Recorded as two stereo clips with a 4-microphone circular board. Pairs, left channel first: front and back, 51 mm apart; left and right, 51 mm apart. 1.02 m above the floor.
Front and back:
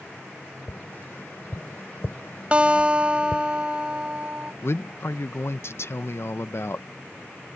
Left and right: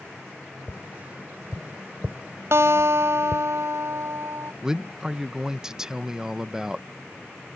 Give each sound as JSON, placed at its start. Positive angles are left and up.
{"t": 0.7, "sound": "tapping", "azimuth_deg": -35}
{"t": 2.5, "sound": "a guitar", "azimuth_deg": -110}
{"t": 4.6, "sound": "a man speaking", "azimuth_deg": -15}